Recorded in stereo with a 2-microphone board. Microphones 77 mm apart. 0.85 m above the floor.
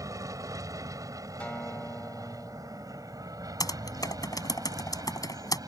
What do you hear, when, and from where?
0.0 s an aircraft: 45° right (ahead or behind); by 5.7 s 50° right (ahead or behind)
1.4 s a guitar: 20° left (ahead or behind)
3.6 s typing on a keyboard: 55° left (ahead or behind)